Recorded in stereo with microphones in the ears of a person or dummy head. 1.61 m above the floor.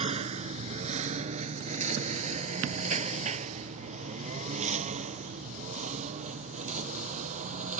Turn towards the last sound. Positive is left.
turn(degrees=-40)  # may be behind; listen again after turning